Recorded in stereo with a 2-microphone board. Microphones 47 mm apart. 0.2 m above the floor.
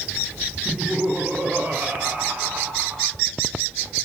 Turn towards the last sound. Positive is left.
turn(degrees=-35)  # may be behind; listen again after turning